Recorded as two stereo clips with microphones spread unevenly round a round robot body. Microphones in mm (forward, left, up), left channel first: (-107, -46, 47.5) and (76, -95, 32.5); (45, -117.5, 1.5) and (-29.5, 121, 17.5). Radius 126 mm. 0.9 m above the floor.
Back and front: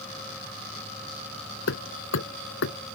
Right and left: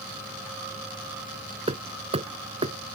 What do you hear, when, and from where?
1.7 s hammering: 175° left